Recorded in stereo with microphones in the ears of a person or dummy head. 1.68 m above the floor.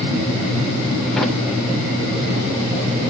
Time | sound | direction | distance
1.2 | a drawer | 5° left (ahead or behind) | 2.5 m